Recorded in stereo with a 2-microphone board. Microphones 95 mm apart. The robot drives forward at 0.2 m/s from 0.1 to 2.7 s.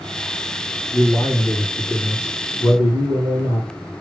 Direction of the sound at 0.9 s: 70° left (ahead or behind).